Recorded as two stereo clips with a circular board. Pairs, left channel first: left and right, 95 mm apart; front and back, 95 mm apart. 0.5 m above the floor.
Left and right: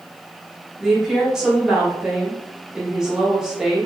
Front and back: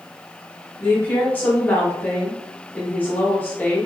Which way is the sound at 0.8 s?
20° right.